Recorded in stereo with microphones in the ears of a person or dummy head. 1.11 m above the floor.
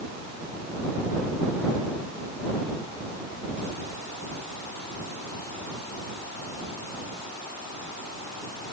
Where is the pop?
No pop in this recording.